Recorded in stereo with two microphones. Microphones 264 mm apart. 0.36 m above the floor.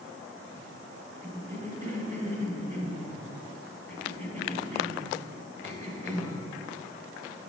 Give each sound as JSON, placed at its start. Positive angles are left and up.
{"t": 1.2, "sound": "a cough", "side_deg": -25, "distance_m": 1.8}